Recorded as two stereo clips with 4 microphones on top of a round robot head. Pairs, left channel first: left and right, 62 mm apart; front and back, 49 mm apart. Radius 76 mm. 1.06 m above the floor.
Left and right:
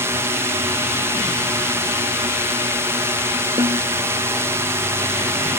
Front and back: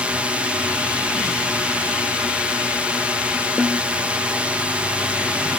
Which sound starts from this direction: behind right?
A drone, at 0.0 s.